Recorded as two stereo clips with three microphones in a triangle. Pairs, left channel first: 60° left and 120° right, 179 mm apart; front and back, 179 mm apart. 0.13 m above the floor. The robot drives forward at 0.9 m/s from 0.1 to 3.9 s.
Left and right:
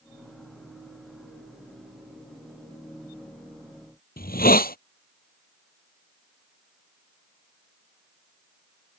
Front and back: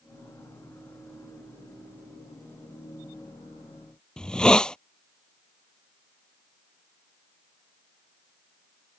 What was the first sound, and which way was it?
A hiss, 85° left.